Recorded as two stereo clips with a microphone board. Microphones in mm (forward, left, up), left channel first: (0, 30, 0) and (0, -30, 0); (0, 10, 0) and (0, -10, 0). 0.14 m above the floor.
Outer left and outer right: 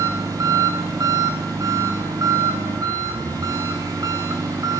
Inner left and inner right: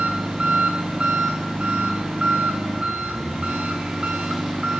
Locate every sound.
0.0 s an engine running: 85° right, 3 m